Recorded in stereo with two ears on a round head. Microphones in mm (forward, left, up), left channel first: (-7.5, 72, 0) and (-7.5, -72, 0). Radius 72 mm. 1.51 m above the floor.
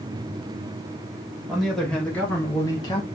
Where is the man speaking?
Centre (ahead or behind), 1.8 m; by 3.1 s 30° left (ahead or behind), 1.2 m.